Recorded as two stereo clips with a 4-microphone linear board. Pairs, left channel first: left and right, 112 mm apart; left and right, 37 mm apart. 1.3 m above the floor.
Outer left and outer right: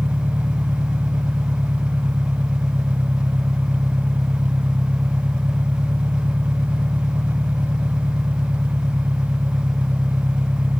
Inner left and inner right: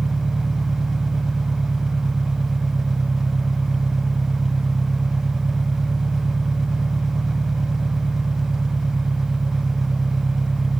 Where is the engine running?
15° right (ahead or behind).